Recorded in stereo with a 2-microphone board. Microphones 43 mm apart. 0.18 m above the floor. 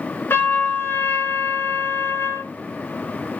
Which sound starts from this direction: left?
A trumpet, at 0.3 s.